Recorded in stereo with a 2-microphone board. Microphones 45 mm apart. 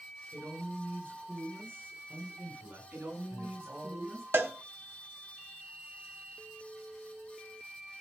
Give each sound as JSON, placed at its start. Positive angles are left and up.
{"t": 0.3, "sound": "a man speaking", "side_deg": -80, "distance_m": 7.5}
{"t": 2.9, "sound": "a man speaking", "side_deg": -70, "distance_m": 7.0}
{"t": 4.3, "sound": "a cowbell", "side_deg": -60, "distance_m": 1.3}